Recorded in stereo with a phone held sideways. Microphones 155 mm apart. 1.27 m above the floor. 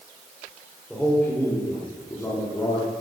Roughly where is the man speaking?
Centre.